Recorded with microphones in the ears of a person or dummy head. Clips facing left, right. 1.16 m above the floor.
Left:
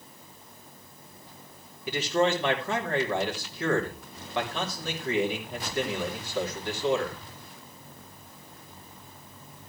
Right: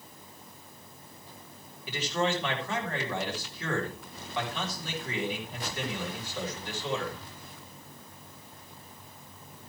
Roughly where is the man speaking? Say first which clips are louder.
Left 5 dB; left.